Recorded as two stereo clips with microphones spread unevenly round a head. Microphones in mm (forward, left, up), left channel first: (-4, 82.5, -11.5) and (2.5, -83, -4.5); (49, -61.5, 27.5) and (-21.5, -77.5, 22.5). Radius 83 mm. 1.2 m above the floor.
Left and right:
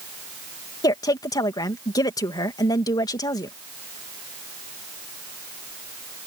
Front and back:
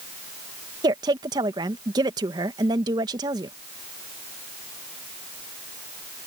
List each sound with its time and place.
0.8 s a woman speaking: 160° left